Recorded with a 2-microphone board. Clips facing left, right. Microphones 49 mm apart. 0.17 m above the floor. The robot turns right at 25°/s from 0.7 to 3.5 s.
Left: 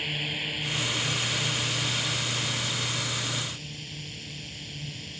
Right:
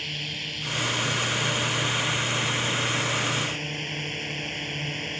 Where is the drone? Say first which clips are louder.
Left 2 dB; 170° left; by 5.2 s 120° right.